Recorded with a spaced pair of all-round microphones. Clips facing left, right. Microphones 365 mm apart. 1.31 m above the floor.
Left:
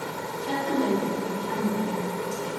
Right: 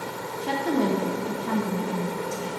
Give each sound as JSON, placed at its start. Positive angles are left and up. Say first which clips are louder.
{"t": 0.4, "sound": "a woman speaking", "louder": "right 2 dB", "side_deg": -80, "distance_m": 0.9}